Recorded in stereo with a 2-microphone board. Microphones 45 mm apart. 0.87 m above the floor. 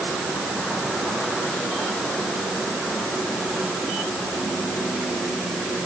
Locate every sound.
Only background noise.